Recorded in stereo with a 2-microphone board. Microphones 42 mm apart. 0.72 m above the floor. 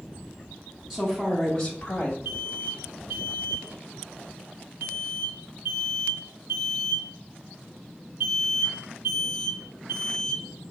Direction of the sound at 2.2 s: 50° right (ahead or behind).